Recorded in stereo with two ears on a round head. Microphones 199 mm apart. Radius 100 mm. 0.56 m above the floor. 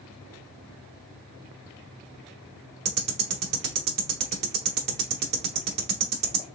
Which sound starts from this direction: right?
Ticking, at 2.9 s.